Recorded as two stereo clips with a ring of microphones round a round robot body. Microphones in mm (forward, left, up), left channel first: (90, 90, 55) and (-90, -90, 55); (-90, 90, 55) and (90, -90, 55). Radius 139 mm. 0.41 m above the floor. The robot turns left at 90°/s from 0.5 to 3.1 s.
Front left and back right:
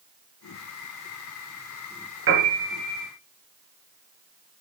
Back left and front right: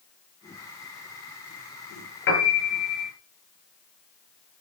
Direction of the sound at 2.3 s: 175° right.